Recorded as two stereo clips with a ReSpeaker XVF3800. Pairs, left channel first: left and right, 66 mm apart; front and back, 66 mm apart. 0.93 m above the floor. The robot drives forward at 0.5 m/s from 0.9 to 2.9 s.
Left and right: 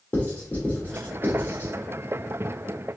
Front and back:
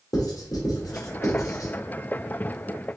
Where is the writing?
25° left, 1.7 m; by 1.7 s 35° left, 1.3 m.